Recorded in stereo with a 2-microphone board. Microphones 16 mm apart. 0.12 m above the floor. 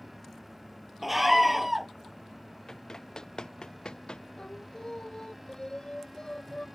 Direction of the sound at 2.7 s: 30° left (ahead or behind).